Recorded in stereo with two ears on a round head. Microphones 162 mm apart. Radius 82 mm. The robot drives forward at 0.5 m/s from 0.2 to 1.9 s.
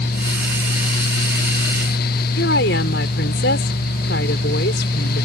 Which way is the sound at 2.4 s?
60° left (ahead or behind).